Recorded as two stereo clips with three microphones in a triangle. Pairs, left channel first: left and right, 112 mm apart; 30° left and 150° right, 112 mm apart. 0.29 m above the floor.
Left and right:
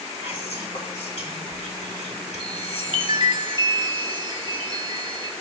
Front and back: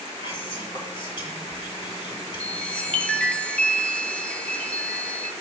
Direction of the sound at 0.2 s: 70° left.